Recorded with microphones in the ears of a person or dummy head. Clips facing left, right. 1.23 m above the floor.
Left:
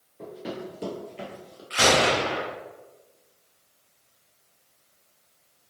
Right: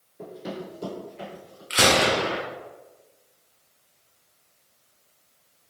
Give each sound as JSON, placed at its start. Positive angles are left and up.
{"t": 0.2, "sound": "running footsteps", "side_deg": -10, "distance_m": 1.2}
{"t": 1.7, "sound": "a gunshot", "side_deg": -35, "distance_m": 0.6}